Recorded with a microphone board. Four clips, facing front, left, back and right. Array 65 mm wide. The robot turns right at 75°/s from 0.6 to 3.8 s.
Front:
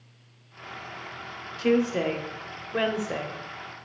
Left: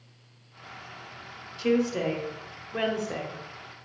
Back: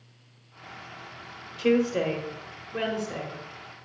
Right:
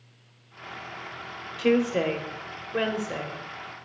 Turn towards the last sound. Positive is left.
turn(degrees=55)